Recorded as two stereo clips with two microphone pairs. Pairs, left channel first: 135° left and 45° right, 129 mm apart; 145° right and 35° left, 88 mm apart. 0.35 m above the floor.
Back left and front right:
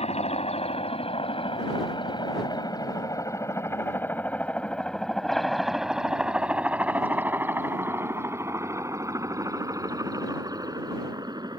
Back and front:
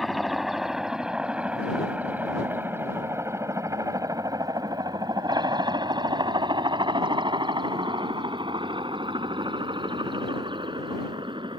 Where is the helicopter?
125° left; by 11.6 s 10° left.